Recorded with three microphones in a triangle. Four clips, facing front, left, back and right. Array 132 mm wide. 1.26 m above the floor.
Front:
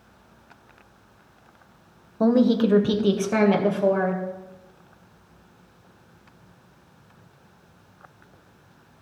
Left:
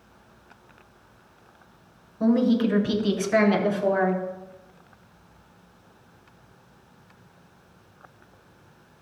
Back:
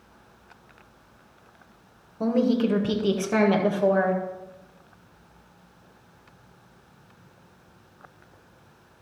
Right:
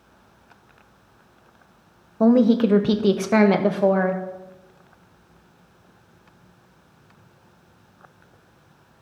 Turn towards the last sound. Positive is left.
turn(degrees=-100)